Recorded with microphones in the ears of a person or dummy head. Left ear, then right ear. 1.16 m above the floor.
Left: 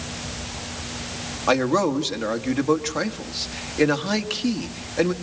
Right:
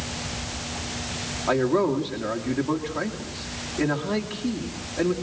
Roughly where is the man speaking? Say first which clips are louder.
Left 2 dB; left.